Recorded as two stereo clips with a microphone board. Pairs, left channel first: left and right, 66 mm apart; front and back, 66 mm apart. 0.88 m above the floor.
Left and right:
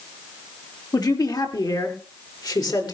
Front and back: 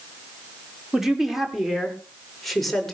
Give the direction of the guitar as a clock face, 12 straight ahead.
I don't hear a guitar.